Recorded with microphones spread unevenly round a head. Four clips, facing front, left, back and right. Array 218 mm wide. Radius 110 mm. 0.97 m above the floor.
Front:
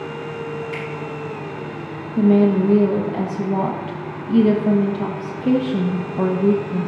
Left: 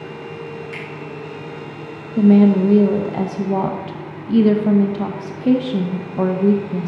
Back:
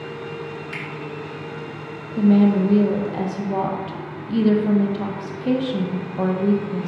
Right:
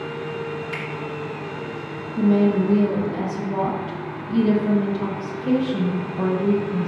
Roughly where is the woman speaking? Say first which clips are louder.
Left 6 dB, front 1 dB; ahead left.